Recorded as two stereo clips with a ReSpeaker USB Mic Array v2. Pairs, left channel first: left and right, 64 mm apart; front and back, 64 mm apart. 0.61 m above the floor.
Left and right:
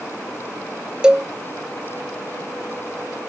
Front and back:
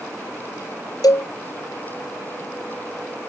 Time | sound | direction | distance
1.0 | a cowbell | 15° right | ?